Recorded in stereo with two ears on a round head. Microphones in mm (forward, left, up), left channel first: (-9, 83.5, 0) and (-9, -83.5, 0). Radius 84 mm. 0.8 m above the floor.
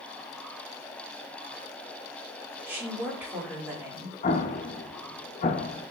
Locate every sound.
2.7 s a woman speaking: 10° right (ahead or behind), 1.3 m
4.2 s an explosion: 35° left (ahead or behind), 0.5 m